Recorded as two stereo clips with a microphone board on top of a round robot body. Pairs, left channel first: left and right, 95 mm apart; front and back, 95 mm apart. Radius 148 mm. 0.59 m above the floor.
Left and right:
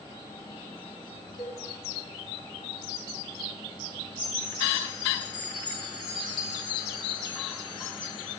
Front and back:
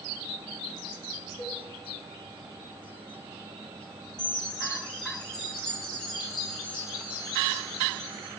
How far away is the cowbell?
About 3.5 m.